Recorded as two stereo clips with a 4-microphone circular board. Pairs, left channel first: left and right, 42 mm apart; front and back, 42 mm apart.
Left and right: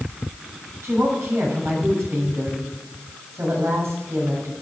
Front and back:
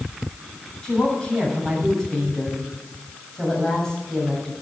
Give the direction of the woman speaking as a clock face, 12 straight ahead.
2 o'clock.